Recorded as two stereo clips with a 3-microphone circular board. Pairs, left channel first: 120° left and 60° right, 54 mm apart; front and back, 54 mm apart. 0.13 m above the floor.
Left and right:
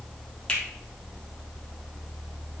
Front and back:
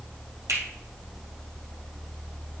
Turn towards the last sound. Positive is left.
turn(degrees=-170)